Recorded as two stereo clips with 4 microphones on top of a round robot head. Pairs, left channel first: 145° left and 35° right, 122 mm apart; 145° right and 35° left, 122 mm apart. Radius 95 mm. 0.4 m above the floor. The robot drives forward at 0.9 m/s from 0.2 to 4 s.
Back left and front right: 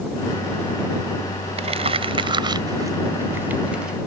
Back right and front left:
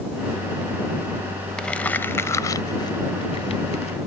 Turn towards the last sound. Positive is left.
turn(degrees=-120)